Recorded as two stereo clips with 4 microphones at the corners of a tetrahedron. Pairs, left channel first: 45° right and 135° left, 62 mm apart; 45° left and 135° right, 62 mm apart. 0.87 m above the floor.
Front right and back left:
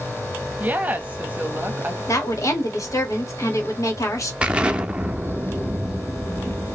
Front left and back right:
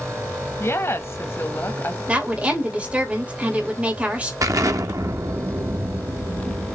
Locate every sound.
0.6 s a woman speaking: 75° left, 1.2 m
2.1 s a woman speaking: 70° right, 2.0 m
4.4 s an explosion: 155° right, 0.7 m